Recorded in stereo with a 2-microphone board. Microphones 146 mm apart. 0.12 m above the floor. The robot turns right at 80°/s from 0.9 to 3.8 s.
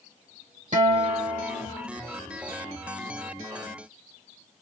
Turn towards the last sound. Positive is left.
turn(degrees=165)